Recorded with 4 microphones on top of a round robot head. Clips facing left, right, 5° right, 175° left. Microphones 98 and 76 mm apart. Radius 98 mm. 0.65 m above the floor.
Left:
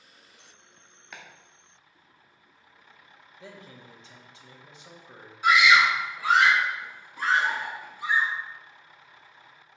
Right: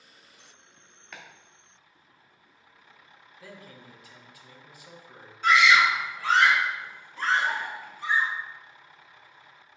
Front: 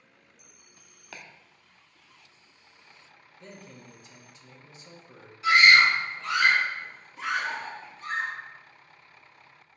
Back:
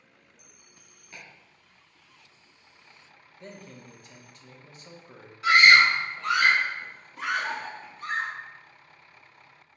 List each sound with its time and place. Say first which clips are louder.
1.1 s chopping: even, front 2 dB; 5° left, 0.6 m
3.4 s a man speaking: left 1 dB, back 2 dB; 150° left, 1.0 m
5.4 s a scream: even, back 1 dB; 165° left, 1.5 m